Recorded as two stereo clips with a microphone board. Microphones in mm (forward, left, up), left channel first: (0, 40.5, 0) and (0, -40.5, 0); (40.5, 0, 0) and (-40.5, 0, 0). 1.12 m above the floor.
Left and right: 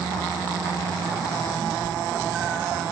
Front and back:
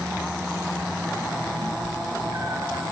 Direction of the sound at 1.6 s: 160° right.